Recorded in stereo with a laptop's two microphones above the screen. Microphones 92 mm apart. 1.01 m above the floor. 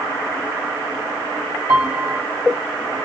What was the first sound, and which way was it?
A piano, 25° right (ahead or behind).